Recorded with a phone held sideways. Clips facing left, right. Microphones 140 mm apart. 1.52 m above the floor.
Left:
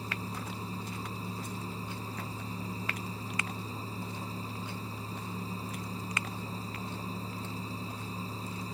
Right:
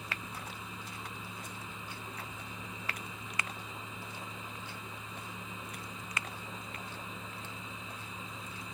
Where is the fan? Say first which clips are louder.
Left 5 dB; 35° left (ahead or behind).